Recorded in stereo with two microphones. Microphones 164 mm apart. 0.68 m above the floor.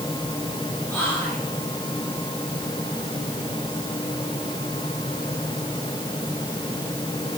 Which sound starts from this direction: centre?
Whispering, at 0.9 s.